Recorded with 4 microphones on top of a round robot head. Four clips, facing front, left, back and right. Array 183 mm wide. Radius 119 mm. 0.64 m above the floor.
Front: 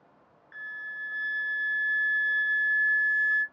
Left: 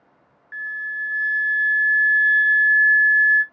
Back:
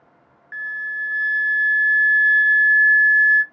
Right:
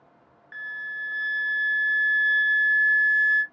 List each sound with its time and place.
0.5 s a flute: 150° right, 0.5 m